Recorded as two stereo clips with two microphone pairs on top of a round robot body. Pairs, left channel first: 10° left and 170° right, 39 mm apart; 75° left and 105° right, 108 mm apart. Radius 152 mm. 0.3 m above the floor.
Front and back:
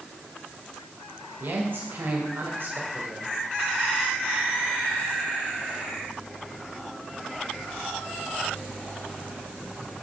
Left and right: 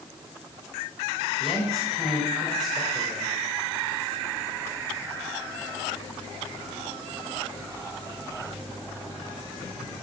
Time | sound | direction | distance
1.4 | a man speaking | 165° left | 2.5 m